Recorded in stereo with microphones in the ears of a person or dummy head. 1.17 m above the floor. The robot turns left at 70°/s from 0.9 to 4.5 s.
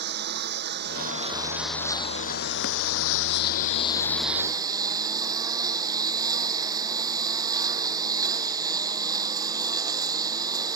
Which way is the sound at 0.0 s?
125° right.